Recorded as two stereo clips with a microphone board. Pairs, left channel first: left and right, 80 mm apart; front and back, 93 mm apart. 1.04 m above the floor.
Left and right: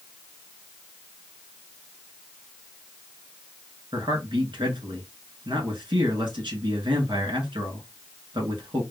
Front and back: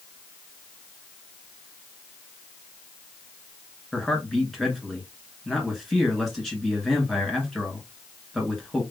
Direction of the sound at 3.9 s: 90° right.